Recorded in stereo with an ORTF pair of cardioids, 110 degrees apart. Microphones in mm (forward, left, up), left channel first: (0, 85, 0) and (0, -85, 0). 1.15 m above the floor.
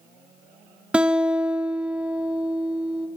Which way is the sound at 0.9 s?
5° right.